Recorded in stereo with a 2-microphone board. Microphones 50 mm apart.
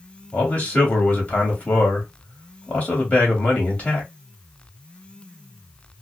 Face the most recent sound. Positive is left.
turn(degrees=30)  # may be behind; listen again after turning